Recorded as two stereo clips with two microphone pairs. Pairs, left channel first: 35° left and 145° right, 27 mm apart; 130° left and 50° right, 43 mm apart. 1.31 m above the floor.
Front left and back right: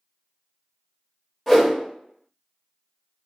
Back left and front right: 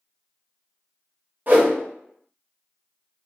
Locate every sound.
1.5 s a whoosh: 45° right, 0.7 m